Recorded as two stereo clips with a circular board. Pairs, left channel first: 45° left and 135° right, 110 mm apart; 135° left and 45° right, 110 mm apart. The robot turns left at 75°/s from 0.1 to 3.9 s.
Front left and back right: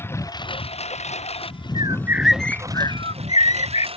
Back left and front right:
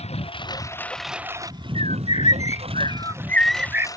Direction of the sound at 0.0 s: 115° left.